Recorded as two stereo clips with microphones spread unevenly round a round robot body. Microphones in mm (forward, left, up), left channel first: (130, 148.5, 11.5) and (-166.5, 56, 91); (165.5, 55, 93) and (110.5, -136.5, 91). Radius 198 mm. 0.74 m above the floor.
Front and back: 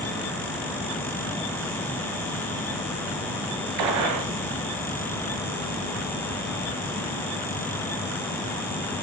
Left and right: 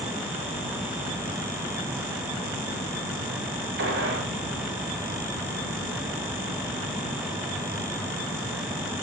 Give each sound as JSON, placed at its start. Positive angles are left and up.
{"t": 3.8, "sound": "a gunshot", "azimuth_deg": -160, "distance_m": 1.8}